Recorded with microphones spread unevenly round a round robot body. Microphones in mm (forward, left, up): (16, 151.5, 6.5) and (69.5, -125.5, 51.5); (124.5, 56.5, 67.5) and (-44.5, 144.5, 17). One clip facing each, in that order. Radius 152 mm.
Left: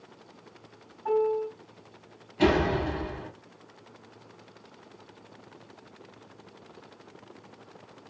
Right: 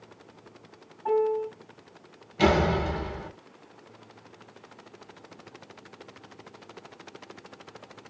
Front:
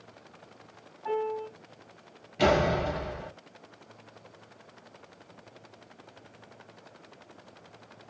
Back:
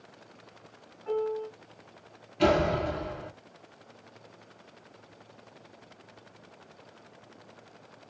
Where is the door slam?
40° right, 2.0 m.